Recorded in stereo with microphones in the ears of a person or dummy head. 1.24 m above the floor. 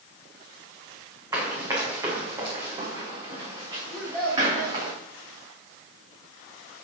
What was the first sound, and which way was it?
Running footsteps, 20° right (ahead or behind).